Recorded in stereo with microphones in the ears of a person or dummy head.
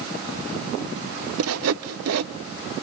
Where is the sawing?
75° right (ahead or behind), 0.6 m.